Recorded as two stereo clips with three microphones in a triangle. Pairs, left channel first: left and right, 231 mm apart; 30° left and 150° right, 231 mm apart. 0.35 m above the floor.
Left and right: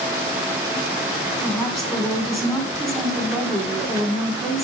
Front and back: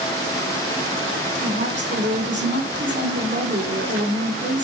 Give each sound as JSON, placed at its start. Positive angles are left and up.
{"t": 1.4, "sound": "a woman speaking", "azimuth_deg": 180, "distance_m": 3.0}